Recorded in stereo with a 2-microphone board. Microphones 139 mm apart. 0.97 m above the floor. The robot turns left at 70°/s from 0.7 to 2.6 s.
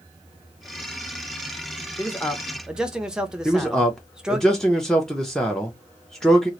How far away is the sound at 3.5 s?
About 0.6 m.